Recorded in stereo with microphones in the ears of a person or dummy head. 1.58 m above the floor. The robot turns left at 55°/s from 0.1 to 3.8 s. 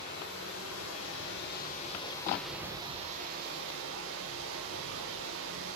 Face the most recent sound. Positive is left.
turn(degrees=-70)